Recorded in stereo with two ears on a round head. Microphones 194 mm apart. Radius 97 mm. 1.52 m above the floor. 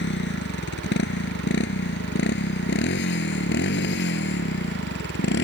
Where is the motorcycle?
50° left (ahead or behind).